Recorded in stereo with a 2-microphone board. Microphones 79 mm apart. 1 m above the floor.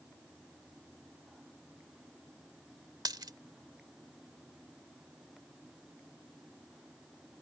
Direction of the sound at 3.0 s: 65° right (ahead or behind).